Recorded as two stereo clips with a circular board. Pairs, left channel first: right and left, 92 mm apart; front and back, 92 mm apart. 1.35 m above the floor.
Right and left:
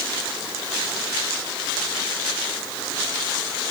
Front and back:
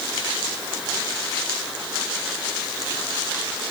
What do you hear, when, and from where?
Only background noise.